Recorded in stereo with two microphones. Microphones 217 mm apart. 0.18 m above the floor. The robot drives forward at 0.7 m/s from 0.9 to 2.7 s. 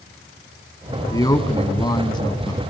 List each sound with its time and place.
1.1 s a man speaking: 15° left (ahead or behind), 1.4 m; by 2.6 s 20° left (ahead or behind), 1.2 m